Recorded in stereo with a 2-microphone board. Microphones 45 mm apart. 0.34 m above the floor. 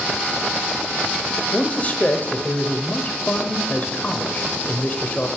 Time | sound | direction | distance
1.5 | a man speaking | 35° left (ahead or behind) | 1.1 m